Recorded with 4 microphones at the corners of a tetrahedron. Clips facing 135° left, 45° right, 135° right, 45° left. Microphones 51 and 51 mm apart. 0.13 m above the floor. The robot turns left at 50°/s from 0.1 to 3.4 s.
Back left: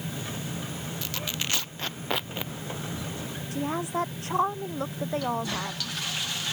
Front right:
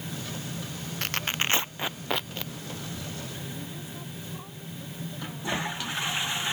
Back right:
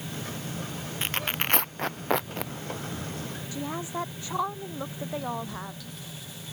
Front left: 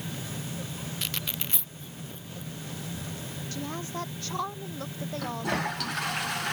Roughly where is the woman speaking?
Behind left.